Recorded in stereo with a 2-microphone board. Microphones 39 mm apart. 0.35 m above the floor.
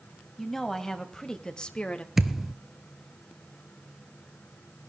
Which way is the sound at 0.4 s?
10° left (ahead or behind).